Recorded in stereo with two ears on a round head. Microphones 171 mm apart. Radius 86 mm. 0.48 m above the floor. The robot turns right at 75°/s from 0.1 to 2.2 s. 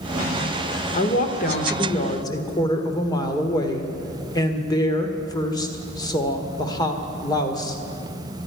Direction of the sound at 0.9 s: 55° left.